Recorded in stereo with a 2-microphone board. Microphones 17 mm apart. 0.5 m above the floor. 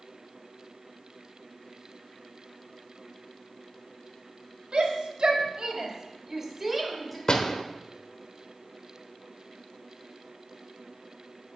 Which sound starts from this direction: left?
A door slam, at 7.3 s.